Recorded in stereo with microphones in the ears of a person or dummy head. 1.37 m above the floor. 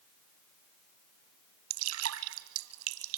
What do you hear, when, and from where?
1.7 s dripping: 80° right, 1.4 m